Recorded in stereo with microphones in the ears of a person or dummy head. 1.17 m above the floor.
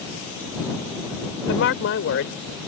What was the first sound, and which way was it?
A woman speaking, 70° left (ahead or behind).